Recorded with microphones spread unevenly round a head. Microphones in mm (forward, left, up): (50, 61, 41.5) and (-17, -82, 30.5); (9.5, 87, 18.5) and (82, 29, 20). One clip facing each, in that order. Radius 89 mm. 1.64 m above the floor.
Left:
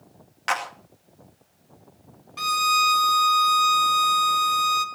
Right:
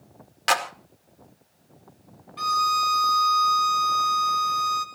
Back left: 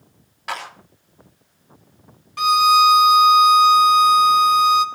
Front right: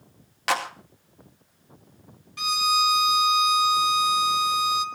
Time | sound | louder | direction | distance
0.5 | a clap | right 3 dB, front right 4 dB | 65° right | 2.5 m
2.4 | a violin | even, back left 10 dB | 110° left | 1.7 m